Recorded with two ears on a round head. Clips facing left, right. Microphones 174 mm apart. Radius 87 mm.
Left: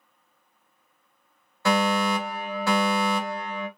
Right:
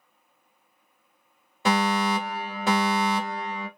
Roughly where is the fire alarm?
Centre.